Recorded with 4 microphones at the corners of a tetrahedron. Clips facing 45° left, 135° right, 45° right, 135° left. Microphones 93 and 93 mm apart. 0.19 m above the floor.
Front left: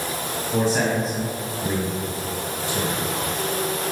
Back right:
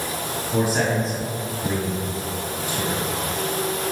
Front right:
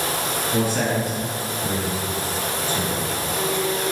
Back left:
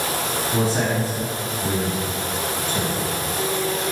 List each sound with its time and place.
0.5 s a man speaking: 165° left, 1.4 m; by 3.0 s 95° left, 2.5 m